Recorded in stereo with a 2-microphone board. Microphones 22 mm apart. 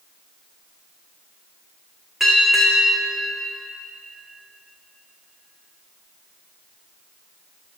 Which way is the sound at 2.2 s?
10° right (ahead or behind).